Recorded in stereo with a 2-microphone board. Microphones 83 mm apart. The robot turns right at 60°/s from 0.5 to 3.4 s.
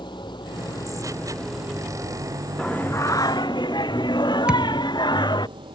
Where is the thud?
10° right (ahead or behind).